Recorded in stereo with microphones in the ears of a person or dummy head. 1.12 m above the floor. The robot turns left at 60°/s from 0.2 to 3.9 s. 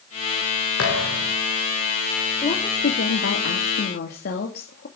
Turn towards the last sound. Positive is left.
turn(degrees=65)